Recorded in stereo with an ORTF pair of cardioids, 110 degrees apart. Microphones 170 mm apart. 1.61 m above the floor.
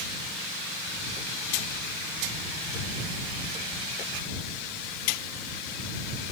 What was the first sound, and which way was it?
Only background noise.